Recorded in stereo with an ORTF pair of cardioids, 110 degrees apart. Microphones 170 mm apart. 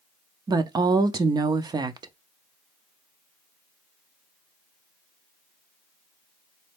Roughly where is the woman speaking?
Ahead right.